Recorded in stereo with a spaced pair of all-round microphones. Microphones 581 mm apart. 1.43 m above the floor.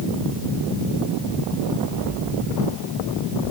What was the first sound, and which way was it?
Only background noise.